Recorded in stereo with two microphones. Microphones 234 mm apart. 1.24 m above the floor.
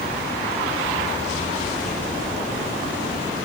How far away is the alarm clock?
I don't hear an alarm clock.